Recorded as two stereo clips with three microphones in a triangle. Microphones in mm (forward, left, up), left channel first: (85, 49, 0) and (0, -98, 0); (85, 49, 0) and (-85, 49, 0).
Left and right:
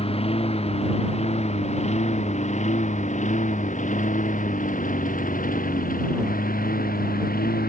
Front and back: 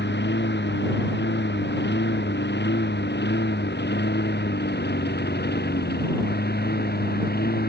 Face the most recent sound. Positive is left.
turn(degrees=25)